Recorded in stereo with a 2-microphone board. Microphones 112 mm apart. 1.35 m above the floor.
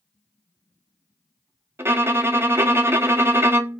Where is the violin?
25° right (ahead or behind), 0.5 m.